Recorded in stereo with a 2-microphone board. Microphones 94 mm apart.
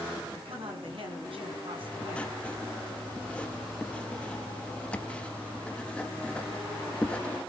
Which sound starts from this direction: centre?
Writing, at 1.8 s.